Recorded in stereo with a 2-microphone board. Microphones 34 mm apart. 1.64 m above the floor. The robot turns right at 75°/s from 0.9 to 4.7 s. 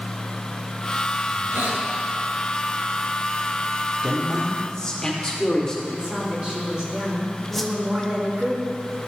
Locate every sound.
1.3 s a hiss: 110° right, 2 m; by 1.9 s 70° right, 2 m
4.0 s a man speaking: 35° right, 1.5 m; by 5.8 s 15° left, 1.5 m
5.9 s a woman speaking: 20° right (ahead or behind), 3 m
7.5 s a whoosh: 5° left (ahead or behind), 0.6 m